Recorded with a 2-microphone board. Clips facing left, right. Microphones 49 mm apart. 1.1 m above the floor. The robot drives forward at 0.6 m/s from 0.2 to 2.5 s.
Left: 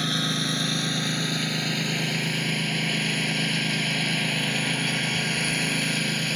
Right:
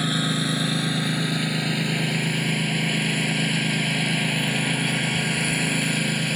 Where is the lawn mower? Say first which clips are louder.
Right 3 dB; 5° right (ahead or behind).